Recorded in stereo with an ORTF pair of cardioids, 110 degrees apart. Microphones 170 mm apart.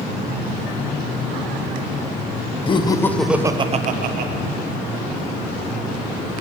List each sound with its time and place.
2.7 s laughter: 30° left, 0.9 m; by 4.3 s 70° right, 1.0 m